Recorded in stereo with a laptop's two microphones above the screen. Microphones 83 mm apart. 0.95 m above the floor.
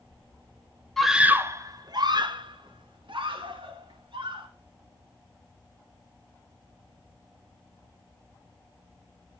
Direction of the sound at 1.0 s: 5° left (ahead or behind).